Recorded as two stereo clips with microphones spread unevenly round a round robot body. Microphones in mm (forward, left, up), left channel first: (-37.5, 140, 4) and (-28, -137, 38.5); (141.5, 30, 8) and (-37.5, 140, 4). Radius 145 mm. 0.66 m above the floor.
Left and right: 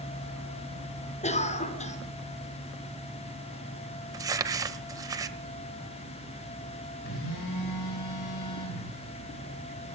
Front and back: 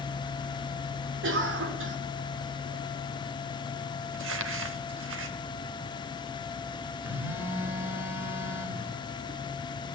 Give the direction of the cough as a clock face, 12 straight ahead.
7 o'clock.